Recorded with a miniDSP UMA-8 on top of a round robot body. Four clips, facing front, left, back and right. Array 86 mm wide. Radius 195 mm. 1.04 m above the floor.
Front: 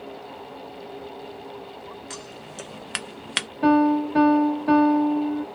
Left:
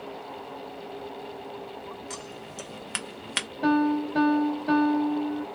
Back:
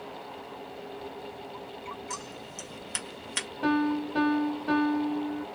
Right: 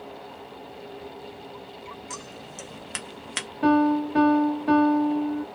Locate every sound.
2.1 s scissors: 10° left, 0.9 m
3.6 s a piano: 40° right, 0.5 m